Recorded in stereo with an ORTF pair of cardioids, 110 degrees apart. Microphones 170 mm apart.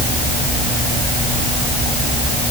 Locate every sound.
Only background noise.